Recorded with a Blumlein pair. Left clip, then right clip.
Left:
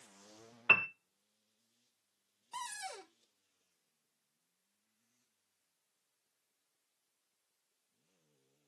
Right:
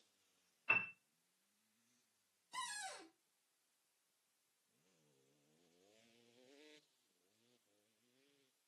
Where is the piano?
40° left, 0.7 m.